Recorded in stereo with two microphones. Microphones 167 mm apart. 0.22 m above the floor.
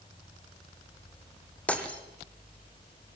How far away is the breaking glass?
About 3 m.